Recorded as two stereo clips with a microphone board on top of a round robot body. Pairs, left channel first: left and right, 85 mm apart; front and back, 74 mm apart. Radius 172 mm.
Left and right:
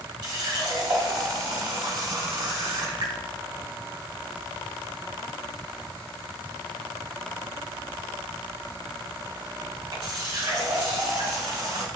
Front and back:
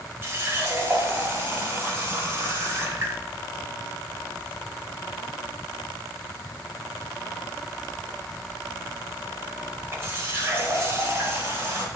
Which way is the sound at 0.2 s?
125° right.